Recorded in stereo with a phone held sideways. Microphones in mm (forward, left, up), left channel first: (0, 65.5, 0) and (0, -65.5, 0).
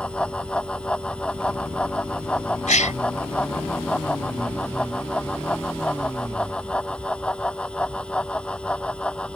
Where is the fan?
10° left (ahead or behind).